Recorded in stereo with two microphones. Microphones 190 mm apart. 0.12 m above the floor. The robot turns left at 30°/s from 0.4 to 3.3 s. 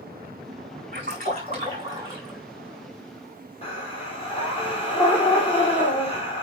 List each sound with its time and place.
0.9 s a splash: 130° right, 5 m; by 2.4 s 175° right, 5 m
3.6 s breathing: 30° left (ahead or behind), 3 m